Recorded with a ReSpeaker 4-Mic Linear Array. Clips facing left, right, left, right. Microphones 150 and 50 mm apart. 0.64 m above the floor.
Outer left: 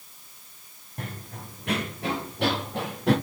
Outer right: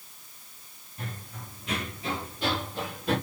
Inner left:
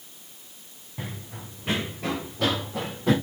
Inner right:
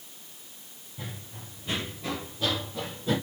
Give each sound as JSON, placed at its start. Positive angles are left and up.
{"t": 1.0, "sound": "running footsteps", "side_deg": 65, "distance_m": 4.0}